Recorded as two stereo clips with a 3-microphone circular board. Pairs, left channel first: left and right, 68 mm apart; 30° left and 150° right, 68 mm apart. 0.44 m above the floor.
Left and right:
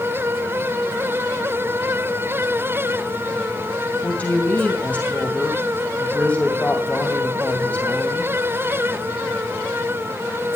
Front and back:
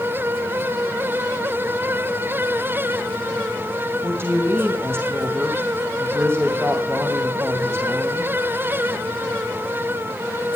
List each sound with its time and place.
4.0 s a woman speaking: 155° left, 2.5 m